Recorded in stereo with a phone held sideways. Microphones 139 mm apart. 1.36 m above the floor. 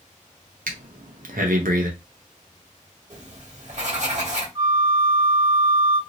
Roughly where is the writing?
Right.